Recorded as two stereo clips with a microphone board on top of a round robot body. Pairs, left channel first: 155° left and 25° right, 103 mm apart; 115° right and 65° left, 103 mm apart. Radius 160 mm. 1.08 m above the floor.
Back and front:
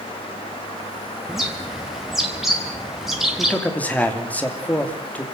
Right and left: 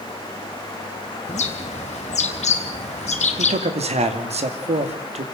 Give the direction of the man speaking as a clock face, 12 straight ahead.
9 o'clock.